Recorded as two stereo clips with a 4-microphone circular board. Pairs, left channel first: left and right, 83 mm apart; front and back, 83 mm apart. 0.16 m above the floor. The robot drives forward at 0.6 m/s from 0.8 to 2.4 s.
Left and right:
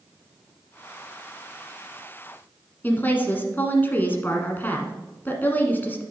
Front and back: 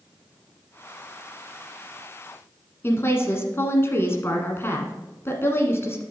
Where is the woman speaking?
40° left, 1.4 m.